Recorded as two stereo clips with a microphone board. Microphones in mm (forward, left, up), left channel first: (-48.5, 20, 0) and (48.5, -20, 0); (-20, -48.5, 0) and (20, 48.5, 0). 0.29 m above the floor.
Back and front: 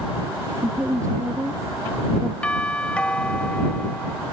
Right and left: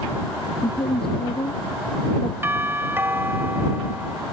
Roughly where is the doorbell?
Left.